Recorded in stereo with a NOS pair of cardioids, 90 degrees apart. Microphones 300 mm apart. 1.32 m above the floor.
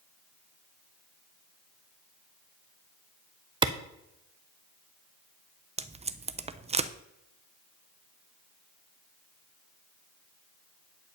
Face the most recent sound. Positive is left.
turn(degrees=-20)